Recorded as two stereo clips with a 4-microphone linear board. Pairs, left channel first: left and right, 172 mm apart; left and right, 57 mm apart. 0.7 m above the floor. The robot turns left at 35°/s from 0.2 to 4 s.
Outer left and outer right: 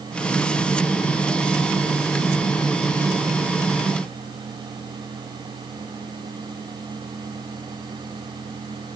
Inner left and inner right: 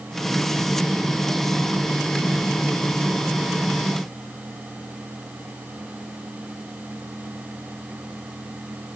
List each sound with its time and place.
Only background noise.